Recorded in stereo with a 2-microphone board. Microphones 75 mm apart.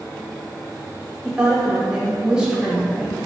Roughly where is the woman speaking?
Centre.